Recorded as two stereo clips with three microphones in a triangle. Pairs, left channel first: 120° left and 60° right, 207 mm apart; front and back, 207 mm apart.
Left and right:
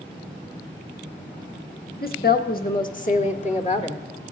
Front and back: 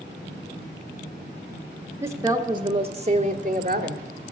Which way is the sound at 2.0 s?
110° left.